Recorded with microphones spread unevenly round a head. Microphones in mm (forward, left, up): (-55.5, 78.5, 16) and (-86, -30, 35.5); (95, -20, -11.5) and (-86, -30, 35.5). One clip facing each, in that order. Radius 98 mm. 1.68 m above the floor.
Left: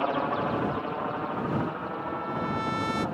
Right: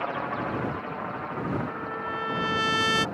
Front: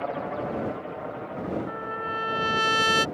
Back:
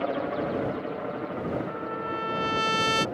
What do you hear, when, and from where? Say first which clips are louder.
0.0 s a helicopter: left 3 dB, back 2 dB; 135° left; by 3.1 s 150° left
1.7 s a trumpet: even, back 1 dB; 80° right